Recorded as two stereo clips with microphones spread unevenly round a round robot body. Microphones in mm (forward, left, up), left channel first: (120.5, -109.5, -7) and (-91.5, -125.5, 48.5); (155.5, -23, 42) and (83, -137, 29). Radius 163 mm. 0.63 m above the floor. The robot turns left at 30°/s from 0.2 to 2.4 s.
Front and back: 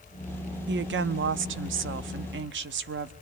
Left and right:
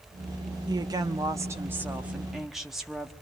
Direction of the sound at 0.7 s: 150° right.